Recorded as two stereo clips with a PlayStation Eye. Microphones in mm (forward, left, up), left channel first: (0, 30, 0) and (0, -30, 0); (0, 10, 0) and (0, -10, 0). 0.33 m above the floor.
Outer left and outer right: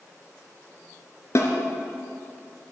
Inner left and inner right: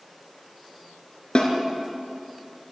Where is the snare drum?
50° left (ahead or behind), 2.5 m.